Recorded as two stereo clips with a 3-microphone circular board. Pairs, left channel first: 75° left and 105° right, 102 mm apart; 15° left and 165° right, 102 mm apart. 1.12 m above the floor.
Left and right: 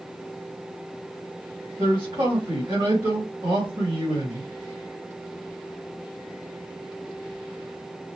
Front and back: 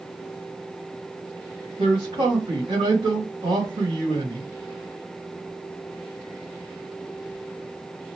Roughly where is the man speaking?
Behind right.